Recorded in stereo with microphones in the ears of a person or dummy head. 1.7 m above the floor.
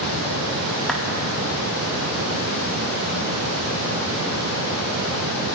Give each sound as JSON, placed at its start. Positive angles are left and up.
{"t": 0.9, "sound": "a clap", "side_deg": 5, "distance_m": 2.5}